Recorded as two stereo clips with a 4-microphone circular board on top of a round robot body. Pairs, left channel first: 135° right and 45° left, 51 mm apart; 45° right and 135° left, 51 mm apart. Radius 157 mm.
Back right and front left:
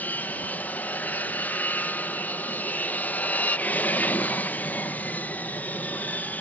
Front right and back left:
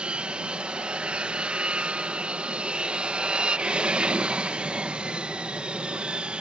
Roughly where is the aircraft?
Behind.